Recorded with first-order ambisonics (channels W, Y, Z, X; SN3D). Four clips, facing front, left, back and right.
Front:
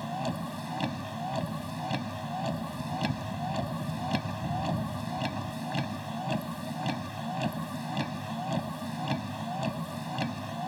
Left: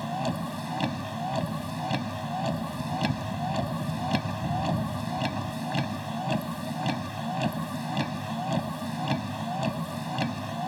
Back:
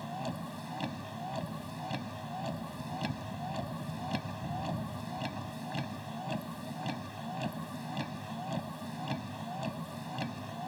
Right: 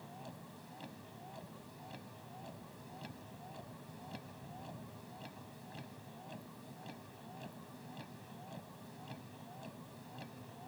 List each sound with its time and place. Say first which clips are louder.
0.0 s a vehicle: left 21 dB, front 5 dB; 70° left